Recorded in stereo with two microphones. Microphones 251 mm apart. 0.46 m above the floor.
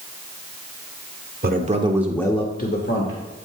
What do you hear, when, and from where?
1.4 s a man speaking: 40° right (ahead or behind), 1.2 m; by 3.2 s 55° left (ahead or behind), 1.5 m